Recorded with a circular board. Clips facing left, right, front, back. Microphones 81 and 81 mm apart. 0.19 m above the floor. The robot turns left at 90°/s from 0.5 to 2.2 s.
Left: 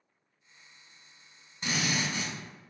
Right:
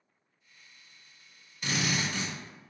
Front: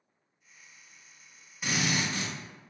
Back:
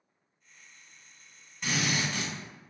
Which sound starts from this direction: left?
A drill, at 1.6 s.